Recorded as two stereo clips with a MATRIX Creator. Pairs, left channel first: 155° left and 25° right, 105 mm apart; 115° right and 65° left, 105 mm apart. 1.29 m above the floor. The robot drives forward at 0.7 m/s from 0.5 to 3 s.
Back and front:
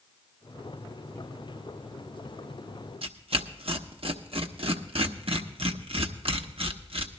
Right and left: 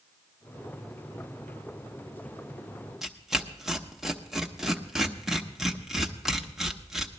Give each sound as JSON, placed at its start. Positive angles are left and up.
{"t": 3.0, "sound": "tearing paper", "azimuth_deg": -20, "distance_m": 1.0}